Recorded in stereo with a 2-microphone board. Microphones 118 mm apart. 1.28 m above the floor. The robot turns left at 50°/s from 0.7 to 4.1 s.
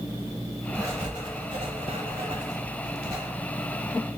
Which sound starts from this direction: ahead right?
Writing, at 0.8 s.